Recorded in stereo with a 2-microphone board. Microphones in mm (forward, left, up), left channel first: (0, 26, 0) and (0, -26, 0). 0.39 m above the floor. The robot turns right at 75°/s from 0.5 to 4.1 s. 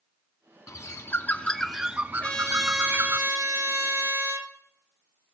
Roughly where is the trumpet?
Behind left.